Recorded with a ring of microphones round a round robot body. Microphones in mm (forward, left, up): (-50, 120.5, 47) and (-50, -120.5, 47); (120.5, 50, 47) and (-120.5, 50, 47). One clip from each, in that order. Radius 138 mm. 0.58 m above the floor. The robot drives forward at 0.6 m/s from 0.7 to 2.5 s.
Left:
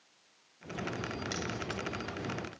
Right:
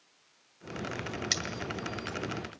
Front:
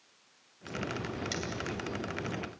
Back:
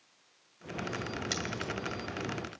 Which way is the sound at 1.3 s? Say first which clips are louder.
Right 10 dB, back 3 dB; 105° right.